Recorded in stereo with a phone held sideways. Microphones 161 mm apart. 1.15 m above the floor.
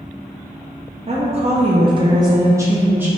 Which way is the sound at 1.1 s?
40° right (ahead or behind).